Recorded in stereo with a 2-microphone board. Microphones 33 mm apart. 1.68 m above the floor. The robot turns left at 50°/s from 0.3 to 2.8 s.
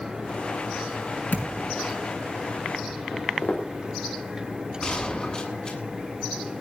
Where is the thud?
70° left (ahead or behind), 5.5 m; by 1.7 s 75° left (ahead or behind), 5.5 m.